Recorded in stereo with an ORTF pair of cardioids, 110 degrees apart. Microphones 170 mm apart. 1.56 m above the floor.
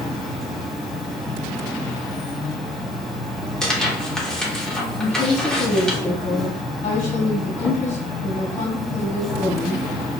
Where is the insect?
Straight ahead, 1.1 m.